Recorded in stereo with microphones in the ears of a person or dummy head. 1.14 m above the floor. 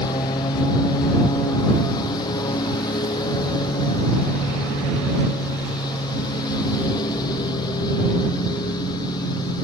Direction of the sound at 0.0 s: 25° left (ahead or behind).